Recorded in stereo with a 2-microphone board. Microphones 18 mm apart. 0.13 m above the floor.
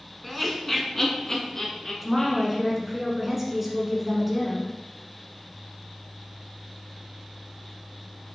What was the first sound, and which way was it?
Laughter, centre (ahead or behind).